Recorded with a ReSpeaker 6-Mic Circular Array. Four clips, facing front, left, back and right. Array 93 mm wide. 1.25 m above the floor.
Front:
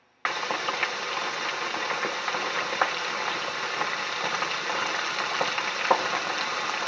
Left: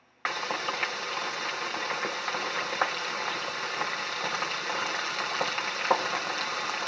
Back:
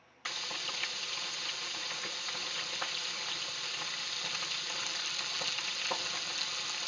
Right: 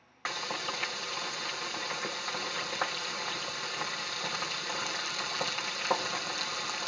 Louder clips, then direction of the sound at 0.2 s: Left 5 dB, front 15 dB; 25° left.